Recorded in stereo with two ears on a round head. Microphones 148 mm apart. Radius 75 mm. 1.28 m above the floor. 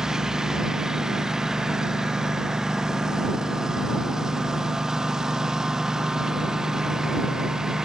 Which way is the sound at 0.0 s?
5° right (ahead or behind).